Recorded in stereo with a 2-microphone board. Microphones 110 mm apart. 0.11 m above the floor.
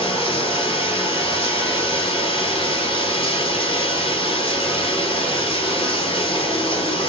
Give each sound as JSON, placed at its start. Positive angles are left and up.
{"t": 0.0, "sound": "running water", "side_deg": 50, "distance_m": 1.1}